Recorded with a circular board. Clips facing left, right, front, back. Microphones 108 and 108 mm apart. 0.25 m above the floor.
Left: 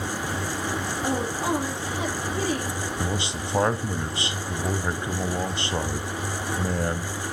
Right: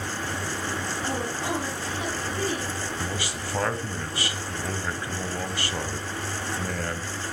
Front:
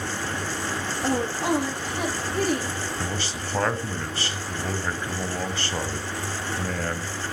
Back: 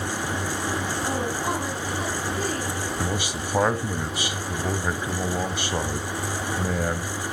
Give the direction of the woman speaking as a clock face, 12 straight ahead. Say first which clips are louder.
Left 5 dB, front 5 dB; 11 o'clock.